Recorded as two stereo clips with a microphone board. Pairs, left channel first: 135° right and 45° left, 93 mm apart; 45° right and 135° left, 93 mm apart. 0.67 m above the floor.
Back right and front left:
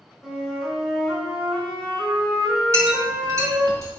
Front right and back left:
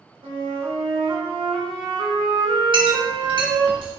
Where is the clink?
100° left, 4 m.